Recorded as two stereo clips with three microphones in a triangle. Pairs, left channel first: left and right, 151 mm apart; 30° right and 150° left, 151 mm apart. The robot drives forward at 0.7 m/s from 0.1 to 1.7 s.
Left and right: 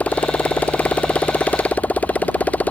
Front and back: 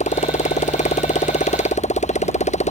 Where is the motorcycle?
10° left.